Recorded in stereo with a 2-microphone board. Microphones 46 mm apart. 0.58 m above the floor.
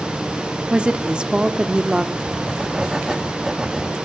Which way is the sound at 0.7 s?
20° right (ahead or behind).